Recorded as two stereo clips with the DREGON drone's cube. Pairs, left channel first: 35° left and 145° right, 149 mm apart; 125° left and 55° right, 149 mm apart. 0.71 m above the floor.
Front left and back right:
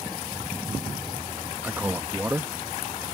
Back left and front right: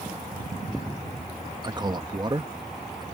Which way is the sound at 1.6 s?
80° right.